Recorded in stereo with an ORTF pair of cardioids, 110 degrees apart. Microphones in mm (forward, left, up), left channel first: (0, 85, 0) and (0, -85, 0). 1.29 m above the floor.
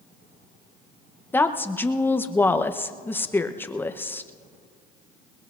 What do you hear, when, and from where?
1.3 s a woman speaking: 10° left, 0.8 m